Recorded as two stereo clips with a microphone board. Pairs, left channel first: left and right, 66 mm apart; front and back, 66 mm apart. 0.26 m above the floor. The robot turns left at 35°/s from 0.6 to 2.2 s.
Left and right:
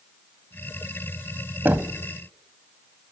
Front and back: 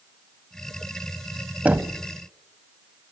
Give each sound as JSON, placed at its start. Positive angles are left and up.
{"t": 1.6, "sound": "knocking", "azimuth_deg": -125, "distance_m": 1.1}